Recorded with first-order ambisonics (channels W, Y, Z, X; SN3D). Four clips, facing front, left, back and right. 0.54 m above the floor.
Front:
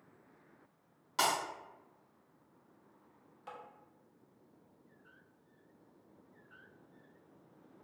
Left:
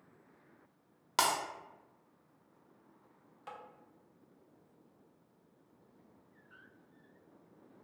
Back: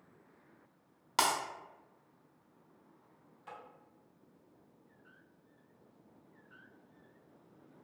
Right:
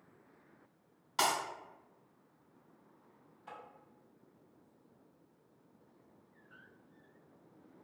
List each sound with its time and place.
1.2 s breaking glass: 125° left, 0.8 m
3.5 s tapping: 75° left, 0.6 m